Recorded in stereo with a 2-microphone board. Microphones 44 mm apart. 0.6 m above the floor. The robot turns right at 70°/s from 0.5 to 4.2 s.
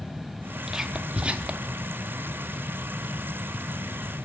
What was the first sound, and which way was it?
Whispering, 10° right (ahead or behind).